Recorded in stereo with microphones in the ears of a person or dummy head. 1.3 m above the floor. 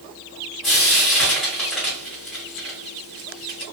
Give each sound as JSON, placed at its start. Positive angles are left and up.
{"t": 0.6, "sound": "frying", "side_deg": 0, "distance_m": 1.3}